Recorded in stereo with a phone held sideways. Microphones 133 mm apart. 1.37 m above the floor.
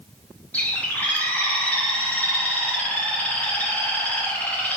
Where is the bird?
10° left (ahead or behind), 0.8 m.